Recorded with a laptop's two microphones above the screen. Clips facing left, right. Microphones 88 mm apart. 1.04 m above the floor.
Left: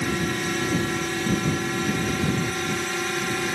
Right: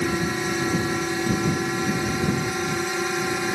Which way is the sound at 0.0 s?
10° right (ahead or behind).